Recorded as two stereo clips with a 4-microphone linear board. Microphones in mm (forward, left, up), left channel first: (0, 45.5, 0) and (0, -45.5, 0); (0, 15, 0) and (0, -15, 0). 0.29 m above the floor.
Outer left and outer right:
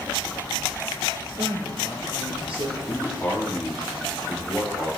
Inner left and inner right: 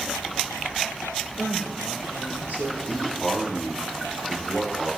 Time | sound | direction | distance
1.4 | a woman speaking | 80° right | 5.5 m
2.9 | a man speaking | 15° left (ahead or behind) | 4 m